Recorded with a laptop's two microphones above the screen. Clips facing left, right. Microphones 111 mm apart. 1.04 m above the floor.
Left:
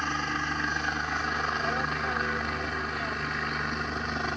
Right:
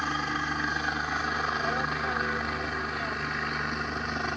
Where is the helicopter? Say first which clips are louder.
Even; 5° right (ahead or behind); by 4.4 s centre (ahead or behind).